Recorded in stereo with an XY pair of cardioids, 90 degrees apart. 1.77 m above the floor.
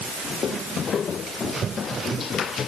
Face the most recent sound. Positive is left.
No sound to turn to.